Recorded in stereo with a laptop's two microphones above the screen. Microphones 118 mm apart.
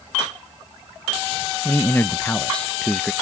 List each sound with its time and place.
1.6 s a man speaking: 20° left (ahead or behind); by 3.1 s 5° left (ahead or behind)